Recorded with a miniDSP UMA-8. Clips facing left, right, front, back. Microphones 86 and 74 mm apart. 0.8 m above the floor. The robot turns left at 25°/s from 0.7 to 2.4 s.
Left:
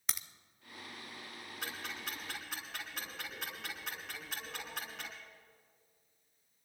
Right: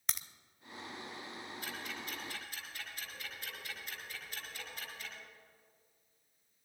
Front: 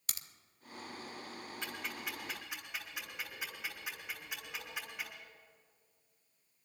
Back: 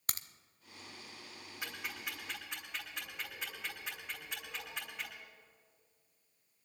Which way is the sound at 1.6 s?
105° left.